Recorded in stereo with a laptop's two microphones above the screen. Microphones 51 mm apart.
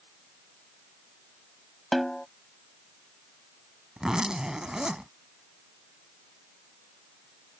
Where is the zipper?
15° right (ahead or behind).